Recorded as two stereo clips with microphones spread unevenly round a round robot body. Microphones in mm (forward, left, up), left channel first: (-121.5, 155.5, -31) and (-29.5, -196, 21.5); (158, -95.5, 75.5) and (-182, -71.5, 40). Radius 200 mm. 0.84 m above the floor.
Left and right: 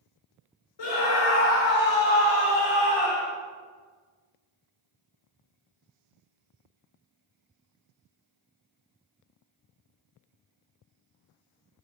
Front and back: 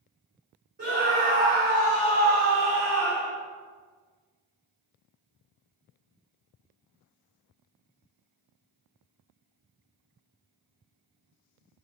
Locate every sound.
0.8 s a scream: 110° left, 3 m; by 3.3 s 85° left, 3.5 m